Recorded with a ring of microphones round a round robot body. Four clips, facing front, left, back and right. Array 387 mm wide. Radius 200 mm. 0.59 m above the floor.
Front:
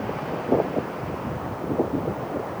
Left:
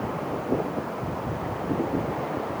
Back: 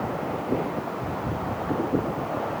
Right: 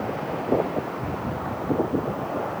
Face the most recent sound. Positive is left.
No sound to turn to.